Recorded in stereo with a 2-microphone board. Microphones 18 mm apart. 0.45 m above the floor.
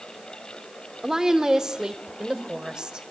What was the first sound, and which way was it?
A woman speaking, 25° right (ahead or behind).